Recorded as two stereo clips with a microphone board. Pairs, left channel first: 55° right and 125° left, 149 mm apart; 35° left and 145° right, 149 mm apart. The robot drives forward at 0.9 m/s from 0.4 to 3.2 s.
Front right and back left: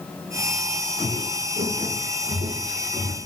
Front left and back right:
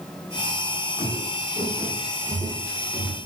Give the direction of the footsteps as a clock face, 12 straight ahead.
7 o'clock.